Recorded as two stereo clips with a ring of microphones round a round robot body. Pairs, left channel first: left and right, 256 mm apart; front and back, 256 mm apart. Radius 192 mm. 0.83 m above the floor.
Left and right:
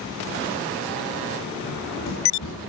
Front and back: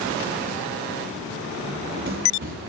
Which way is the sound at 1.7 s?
140° left.